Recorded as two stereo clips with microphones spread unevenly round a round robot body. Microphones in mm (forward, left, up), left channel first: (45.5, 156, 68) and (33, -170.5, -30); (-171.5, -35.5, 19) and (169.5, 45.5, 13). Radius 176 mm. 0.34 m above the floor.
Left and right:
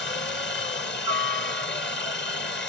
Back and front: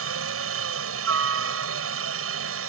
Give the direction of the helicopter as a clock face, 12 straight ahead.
11 o'clock.